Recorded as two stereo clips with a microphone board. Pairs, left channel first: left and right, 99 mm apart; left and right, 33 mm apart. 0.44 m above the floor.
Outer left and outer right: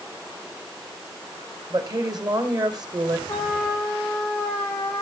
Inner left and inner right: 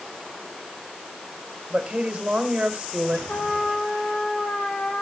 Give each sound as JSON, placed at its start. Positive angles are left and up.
{"t": 1.7, "sound": "a woman speaking", "side_deg": -50, "distance_m": 2.5}
{"t": 3.3, "sound": "a trumpet", "side_deg": 15, "distance_m": 6.0}